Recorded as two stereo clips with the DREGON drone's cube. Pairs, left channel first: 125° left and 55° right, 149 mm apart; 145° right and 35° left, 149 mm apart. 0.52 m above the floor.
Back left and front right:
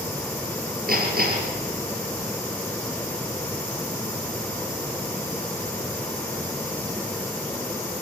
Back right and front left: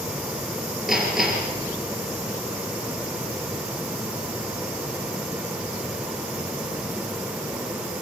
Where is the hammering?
55° right, 5 m.